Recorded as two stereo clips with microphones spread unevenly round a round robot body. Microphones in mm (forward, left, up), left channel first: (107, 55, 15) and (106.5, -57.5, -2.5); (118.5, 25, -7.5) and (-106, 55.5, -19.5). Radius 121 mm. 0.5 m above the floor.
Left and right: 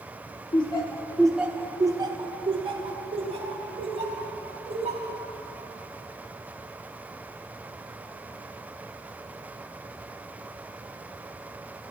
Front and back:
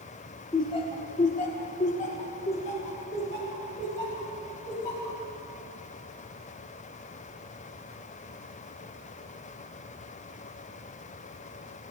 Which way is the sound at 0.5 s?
60° left.